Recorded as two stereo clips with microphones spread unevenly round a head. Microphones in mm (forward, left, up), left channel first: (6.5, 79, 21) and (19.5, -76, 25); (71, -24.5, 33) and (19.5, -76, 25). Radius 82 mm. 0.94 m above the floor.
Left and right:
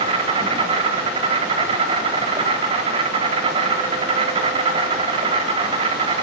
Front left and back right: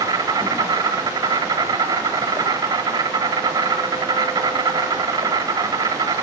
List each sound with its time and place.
0.0 s an insect: 140° right, 4 m